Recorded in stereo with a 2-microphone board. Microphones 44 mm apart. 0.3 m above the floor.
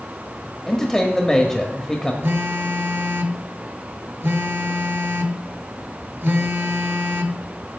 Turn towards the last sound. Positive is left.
turn(degrees=-60)  # may be behind; listen again after turning